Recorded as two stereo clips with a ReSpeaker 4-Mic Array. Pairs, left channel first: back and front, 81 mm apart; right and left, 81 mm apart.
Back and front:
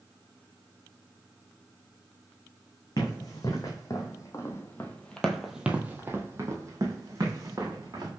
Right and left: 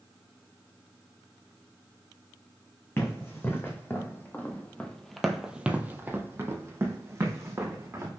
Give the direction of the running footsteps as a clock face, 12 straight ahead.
5 o'clock.